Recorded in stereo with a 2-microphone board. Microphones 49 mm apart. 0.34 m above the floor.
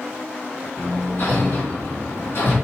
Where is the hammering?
60° left (ahead or behind), 3.5 m.